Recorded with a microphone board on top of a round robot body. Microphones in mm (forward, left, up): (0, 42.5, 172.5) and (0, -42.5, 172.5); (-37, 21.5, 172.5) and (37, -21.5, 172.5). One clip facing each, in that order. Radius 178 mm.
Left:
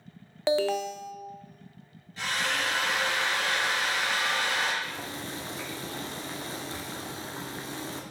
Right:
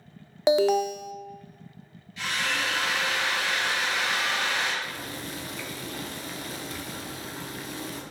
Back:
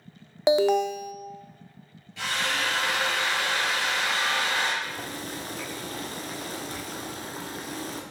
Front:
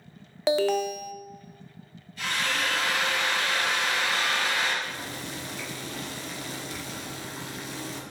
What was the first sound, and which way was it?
An alarm, 150° right.